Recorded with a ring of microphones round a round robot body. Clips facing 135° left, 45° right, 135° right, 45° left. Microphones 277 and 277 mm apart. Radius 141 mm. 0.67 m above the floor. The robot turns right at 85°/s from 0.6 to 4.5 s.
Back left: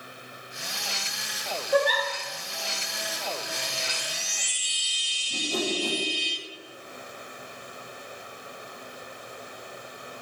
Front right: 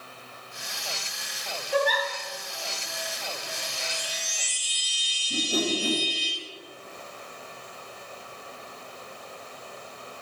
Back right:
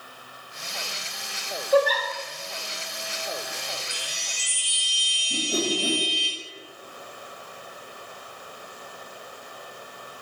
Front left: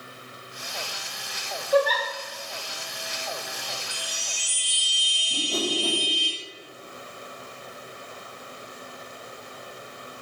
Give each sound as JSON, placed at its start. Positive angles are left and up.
{"t": 1.7, "sound": "a giggle", "azimuth_deg": 160, "distance_m": 1.3}
{"t": 3.9, "sound": "a chime", "azimuth_deg": -170, "distance_m": 1.8}
{"t": 5.3, "sound": "a whoosh", "azimuth_deg": -85, "distance_m": 0.9}